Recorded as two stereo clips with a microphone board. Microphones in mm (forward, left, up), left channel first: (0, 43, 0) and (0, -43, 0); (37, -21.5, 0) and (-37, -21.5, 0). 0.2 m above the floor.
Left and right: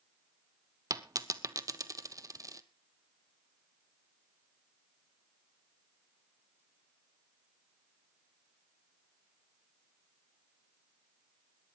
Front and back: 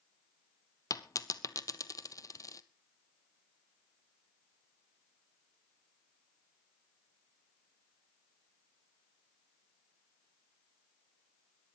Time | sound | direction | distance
0.9 | a dropped coin | 45° right | 0.8 m